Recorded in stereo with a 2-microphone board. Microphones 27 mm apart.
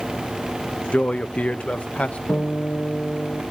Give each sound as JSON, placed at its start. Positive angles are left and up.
{"t": 0.9, "sound": "a man speaking", "side_deg": 60, "distance_m": 0.7}
{"t": 2.3, "sound": "a guitar", "side_deg": 80, "distance_m": 6.5}